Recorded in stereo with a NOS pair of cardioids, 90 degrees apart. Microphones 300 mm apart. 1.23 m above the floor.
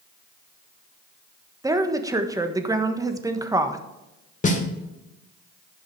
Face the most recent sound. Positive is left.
turn(degrees=25)